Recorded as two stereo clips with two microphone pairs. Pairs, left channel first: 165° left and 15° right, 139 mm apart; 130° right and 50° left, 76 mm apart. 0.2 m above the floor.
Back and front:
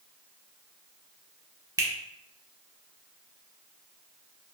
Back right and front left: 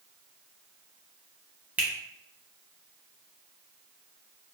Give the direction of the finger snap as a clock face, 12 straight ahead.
12 o'clock.